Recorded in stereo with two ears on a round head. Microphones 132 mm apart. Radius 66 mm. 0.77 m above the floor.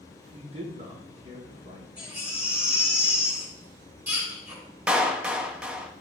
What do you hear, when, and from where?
0.3 s a man speaking: 40° right (ahead or behind), 1.5 m
2.0 s a baby crying: 10° right (ahead or behind), 3 m
4.9 s a clap: 5° right (ahead or behind), 0.6 m